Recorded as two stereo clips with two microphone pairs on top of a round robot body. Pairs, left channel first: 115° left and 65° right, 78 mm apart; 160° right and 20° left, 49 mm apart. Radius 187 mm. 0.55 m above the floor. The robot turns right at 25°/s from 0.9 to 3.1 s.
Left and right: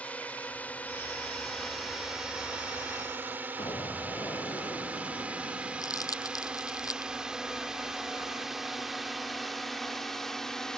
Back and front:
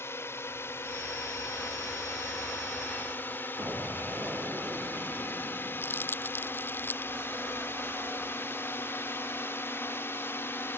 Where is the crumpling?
155° left.